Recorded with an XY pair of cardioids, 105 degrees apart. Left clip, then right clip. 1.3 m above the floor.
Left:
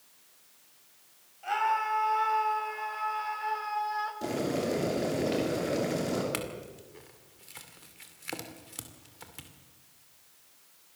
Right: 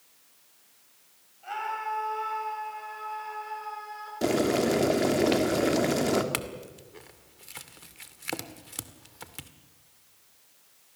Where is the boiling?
60° right, 3 m.